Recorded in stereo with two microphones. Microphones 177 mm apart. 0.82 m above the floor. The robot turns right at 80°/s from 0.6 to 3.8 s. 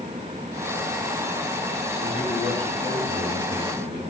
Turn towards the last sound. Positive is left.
turn(degrees=130)